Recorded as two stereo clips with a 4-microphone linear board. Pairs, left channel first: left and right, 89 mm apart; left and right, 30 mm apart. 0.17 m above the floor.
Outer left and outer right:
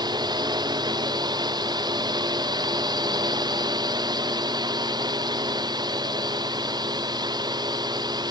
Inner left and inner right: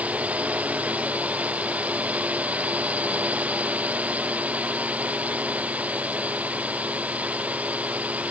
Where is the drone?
55° right (ahead or behind).